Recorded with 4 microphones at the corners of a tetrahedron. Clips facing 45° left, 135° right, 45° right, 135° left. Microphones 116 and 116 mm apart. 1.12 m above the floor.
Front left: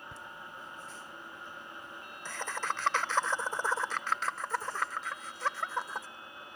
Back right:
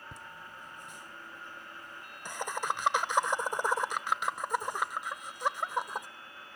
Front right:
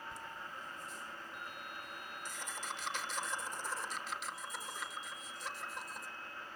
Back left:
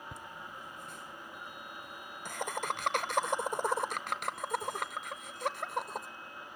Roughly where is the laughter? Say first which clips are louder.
Front left 1 dB, back left 1 dB; behind left.